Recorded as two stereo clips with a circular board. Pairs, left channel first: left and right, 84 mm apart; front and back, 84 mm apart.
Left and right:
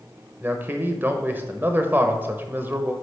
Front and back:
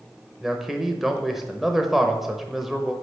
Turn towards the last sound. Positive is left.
turn(degrees=-100)